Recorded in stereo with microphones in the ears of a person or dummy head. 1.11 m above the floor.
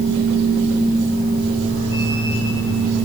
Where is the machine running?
50° right (ahead or behind), 3.5 m.